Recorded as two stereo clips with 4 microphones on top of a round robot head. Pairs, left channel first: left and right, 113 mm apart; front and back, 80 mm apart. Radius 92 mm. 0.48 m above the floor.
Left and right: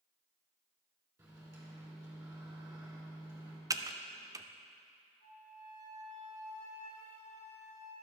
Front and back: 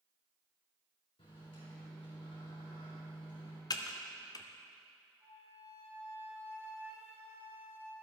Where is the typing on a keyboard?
30° right, 0.7 m.